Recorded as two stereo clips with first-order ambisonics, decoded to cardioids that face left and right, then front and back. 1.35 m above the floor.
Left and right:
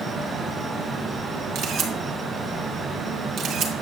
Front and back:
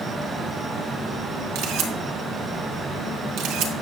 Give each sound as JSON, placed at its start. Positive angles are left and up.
{"t": 1.6, "sound": "a camera shutter", "azimuth_deg": -140, "distance_m": 1.6}